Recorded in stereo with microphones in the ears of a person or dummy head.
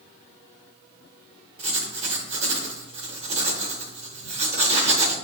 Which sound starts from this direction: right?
Writing, at 1.6 s.